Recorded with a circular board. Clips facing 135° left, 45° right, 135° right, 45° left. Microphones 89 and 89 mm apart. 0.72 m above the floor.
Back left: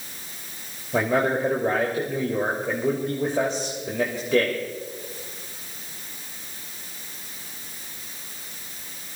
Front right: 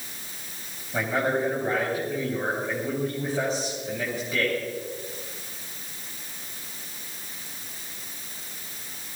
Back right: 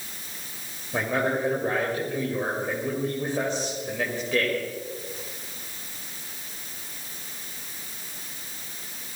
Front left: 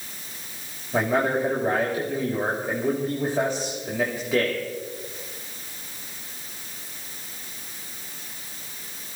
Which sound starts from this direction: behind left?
A man speaking, at 0.9 s.